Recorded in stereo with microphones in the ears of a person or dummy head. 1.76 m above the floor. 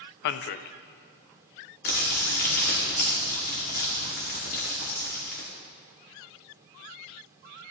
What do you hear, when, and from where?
0.2 s a man speaking: 60° left (ahead or behind), 0.5 m
1.9 s crumpling: 40° left (ahead or behind), 1.9 m